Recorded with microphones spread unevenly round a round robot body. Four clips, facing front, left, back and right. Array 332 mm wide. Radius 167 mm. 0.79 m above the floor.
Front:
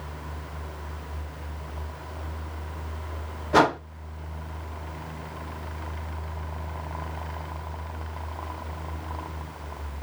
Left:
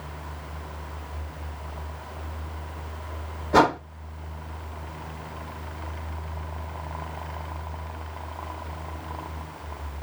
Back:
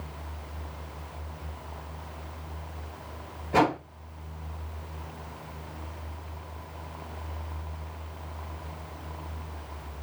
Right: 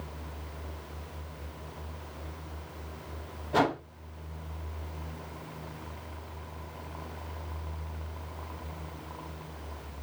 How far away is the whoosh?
About 0.9 m.